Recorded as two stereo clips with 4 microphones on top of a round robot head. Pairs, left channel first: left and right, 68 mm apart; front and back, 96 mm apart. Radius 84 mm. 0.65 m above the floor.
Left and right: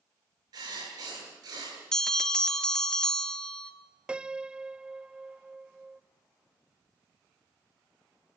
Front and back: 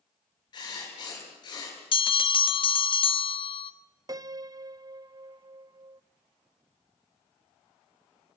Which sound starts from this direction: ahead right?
Writing, at 0.5 s.